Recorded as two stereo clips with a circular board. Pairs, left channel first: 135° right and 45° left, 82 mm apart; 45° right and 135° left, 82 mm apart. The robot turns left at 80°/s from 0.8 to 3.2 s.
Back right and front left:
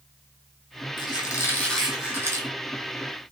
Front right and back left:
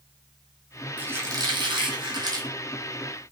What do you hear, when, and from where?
1.0 s a squeak: 155° right, 1.0 m; by 2.5 s 85° left, 1.0 m